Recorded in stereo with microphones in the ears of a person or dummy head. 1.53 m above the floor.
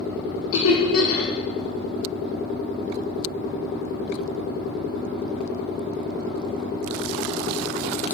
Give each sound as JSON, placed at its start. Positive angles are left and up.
{"t": 0.5, "sound": "laughter", "side_deg": 80, "distance_m": 0.5}